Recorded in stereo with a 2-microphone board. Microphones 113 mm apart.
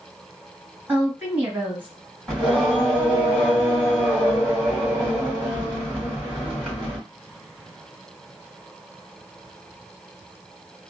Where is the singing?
5° left (ahead or behind), 1.5 m.